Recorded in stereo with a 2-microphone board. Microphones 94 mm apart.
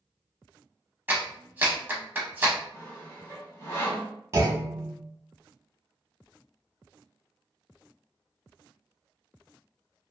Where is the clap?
20° right (ahead or behind), 0.8 m.